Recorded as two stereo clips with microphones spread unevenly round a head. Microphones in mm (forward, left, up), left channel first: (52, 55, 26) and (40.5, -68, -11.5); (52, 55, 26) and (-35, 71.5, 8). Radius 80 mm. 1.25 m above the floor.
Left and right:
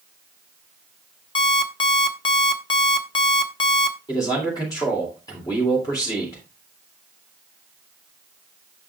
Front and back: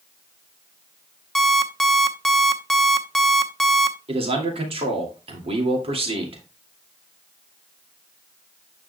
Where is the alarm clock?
65° left, 0.9 m.